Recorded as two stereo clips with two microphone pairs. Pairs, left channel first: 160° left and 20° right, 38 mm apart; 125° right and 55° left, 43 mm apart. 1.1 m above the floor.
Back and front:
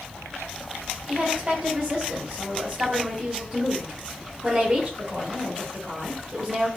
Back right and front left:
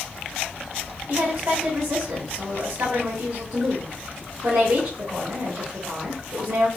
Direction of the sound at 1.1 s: 45° left.